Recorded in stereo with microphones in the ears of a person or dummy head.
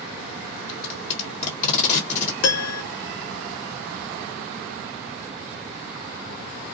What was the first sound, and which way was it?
Tape being pulled, 40° left (ahead or behind).